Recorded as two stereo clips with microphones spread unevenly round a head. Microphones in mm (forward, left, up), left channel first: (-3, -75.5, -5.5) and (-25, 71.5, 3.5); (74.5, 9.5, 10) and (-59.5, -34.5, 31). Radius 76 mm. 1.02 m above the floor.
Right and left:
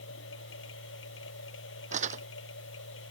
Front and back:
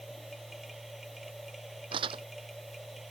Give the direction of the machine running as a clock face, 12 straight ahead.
2 o'clock.